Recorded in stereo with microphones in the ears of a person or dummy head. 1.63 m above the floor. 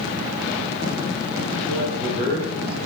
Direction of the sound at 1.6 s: 15° left (ahead or behind).